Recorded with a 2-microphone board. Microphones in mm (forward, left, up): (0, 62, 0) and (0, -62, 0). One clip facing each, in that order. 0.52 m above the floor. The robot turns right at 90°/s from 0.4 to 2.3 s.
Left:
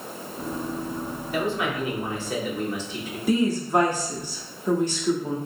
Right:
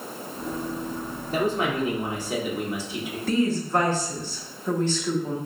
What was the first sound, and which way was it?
A man speaking, 105° right.